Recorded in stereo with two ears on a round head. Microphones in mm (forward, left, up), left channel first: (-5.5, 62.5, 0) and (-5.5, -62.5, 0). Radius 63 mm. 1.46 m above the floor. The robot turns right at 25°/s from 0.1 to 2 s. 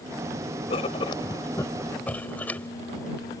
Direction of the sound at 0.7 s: 135° left.